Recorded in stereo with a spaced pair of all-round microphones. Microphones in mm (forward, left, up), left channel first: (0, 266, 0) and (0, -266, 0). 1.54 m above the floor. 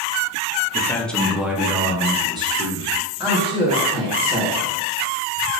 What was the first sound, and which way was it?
A man speaking, 5° left (ahead or behind).